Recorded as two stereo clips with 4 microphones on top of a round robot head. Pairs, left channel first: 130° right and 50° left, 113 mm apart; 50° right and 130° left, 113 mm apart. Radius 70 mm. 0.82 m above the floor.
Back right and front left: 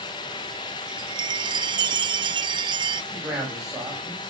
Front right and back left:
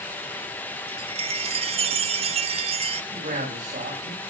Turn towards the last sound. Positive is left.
turn(degrees=140)